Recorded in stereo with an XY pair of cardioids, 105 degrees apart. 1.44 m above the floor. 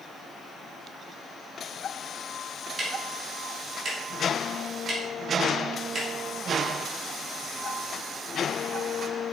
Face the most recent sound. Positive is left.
turn(degrees=-50)